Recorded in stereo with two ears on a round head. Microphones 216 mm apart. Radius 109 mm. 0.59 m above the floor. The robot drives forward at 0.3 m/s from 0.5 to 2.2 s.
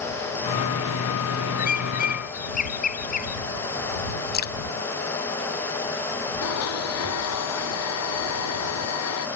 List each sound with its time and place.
1.6 s a bird: 35° left (ahead or behind)
4.3 s dripping: 45° left (ahead or behind)
6.4 s a blender: 75° left (ahead or behind)